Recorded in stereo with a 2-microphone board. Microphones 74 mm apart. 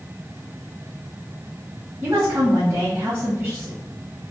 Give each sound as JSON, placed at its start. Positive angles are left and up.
{"t": 2.0, "sound": "a woman speaking", "side_deg": -20, "distance_m": 1.1}